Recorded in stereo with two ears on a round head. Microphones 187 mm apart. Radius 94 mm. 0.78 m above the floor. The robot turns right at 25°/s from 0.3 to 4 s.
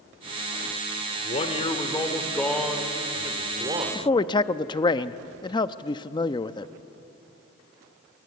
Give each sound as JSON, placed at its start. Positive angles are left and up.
{"t": 1.2, "sound": "a man speaking", "azimuth_deg": 140, "distance_m": 2.5}
{"t": 4.0, "sound": "a man speaking", "side_deg": 25, "distance_m": 0.7}